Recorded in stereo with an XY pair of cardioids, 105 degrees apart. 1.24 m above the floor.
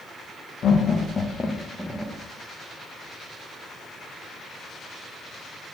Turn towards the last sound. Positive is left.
turn(degrees=-10)